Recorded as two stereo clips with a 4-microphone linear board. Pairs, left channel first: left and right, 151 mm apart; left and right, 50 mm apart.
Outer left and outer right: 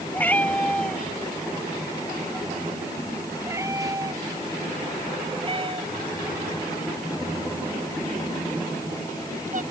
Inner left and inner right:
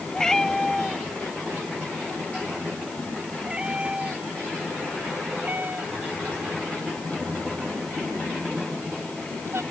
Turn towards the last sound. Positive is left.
turn(degrees=-60)  # may be behind; listen again after turning